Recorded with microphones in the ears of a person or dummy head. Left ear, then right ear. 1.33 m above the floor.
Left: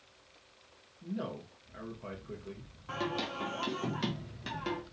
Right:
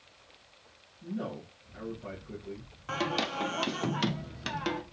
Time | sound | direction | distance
1.0 | a man speaking | 30° left (ahead or behind) | 1.0 m
2.9 | singing | 30° right (ahead or behind) | 0.5 m